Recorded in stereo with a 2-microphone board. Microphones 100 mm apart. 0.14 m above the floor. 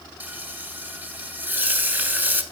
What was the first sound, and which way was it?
Frying, 20° right (ahead or behind).